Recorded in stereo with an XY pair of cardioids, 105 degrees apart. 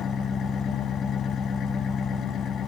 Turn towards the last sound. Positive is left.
turn(degrees=65)